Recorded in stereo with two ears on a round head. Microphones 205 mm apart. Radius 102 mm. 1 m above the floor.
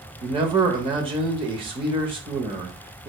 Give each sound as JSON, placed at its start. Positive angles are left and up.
{"t": 0.2, "sound": "a man speaking", "side_deg": -25, "distance_m": 0.8}